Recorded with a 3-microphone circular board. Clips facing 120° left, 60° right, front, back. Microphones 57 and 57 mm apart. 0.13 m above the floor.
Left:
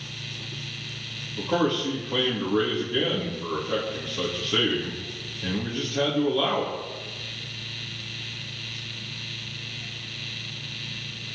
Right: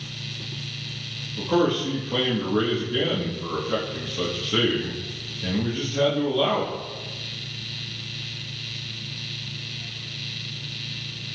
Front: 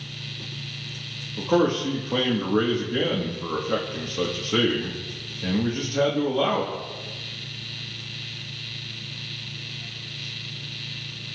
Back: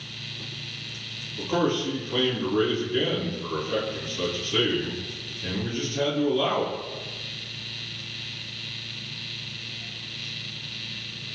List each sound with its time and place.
1.4 s a man speaking: 30° left, 4.5 m